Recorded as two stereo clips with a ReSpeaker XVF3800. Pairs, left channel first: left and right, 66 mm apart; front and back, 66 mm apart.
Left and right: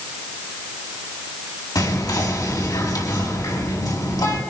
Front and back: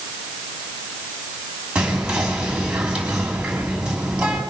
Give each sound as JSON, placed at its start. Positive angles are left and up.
{"t": 1.8, "sound": "whispering", "azimuth_deg": 105, "distance_m": 3.5}